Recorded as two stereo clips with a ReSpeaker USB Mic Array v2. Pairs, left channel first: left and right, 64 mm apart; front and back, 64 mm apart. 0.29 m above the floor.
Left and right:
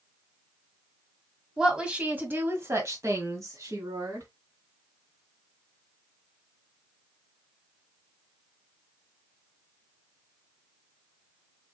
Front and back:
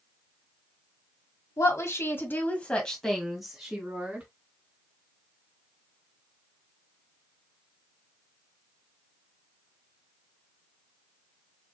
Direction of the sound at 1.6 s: 10° right.